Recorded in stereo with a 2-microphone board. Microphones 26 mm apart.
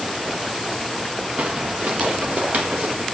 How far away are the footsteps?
About 0.9 m.